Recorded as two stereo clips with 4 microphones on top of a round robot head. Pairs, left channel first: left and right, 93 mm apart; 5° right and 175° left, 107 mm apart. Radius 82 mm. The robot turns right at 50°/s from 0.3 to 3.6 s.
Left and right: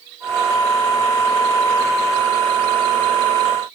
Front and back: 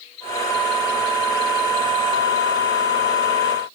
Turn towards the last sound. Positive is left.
No sound to turn to.